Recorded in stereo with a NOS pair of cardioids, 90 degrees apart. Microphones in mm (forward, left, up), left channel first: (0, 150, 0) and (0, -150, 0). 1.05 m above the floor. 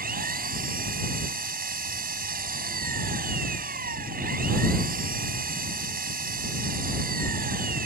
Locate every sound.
0.0 s an engine running: 30° right